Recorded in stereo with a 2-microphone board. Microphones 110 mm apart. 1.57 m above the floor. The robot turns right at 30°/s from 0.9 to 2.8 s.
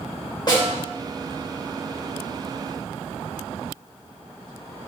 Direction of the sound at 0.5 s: 40° left (ahead or behind).